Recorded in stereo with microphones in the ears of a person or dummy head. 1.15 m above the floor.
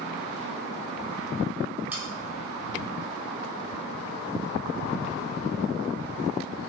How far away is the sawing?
About 3 m.